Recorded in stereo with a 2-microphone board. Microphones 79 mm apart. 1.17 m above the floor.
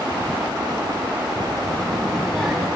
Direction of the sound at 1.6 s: 15° left (ahead or behind).